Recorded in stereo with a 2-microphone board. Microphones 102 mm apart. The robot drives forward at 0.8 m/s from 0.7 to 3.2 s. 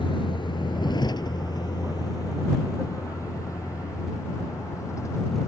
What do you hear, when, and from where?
0.0 s a vehicle: 55° left (ahead or behind); by 5.5 s 30° left (ahead or behind)